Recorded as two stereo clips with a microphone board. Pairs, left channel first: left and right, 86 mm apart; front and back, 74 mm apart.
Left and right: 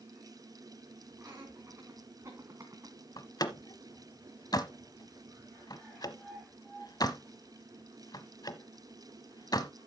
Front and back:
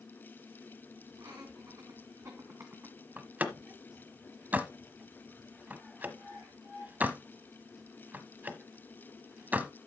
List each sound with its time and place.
1.2 s laughter: 150° right, 3.5 m; by 3.0 s 125° right, 1.8 m
3.2 s a door slam: 115° left, 1.0 m